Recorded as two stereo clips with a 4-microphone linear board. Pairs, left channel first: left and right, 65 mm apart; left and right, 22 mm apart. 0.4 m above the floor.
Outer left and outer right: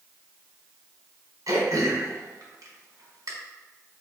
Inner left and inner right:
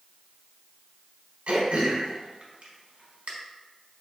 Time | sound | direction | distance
1.5 | throat clearing | 65° right (ahead or behind) | 1.1 m